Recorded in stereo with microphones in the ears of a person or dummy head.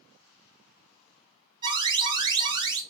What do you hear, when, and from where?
1.6 s an alarm: 25° right (ahead or behind), 0.5 m